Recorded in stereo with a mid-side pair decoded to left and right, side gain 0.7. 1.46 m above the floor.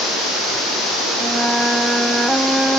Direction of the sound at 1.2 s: 5° right.